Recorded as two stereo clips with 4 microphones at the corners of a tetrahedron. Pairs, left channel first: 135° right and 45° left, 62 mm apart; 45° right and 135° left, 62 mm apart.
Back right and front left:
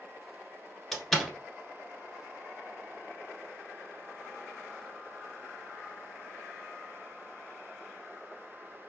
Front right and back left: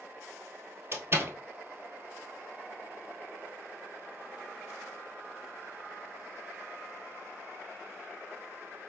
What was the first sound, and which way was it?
A door slam, 145° left.